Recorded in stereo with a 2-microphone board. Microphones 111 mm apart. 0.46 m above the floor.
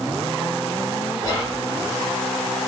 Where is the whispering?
30° left (ahead or behind), 1.4 m.